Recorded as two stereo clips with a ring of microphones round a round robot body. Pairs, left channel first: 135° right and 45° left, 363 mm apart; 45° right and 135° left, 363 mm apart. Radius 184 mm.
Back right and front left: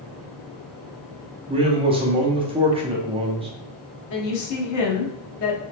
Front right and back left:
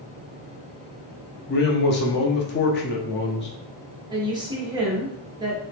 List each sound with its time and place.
1.5 s a man speaking: 20° right, 0.6 m
4.1 s a woman speaking: 150° right, 0.9 m